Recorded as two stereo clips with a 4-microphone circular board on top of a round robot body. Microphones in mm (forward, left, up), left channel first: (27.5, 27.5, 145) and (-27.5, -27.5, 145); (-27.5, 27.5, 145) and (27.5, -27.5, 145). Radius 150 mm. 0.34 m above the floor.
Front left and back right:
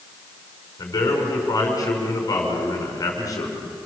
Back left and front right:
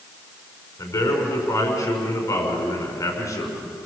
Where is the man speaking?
85° left, 6 m.